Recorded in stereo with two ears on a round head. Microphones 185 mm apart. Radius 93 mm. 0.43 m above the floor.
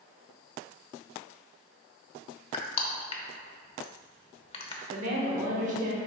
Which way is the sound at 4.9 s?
40° right (ahead or behind).